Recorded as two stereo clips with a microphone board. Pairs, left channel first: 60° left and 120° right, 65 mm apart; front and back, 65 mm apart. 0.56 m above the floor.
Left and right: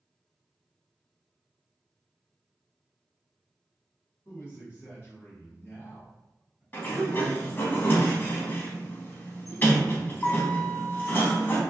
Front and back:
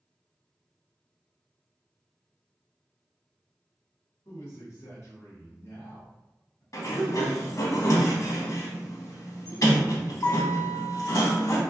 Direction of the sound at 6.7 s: 10° left.